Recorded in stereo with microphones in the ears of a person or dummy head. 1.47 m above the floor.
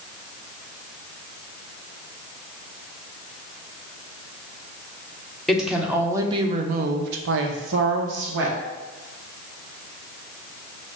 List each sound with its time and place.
5.5 s a woman speaking: centre (ahead or behind), 0.9 m; by 8.6 s 65° right (ahead or behind), 1.1 m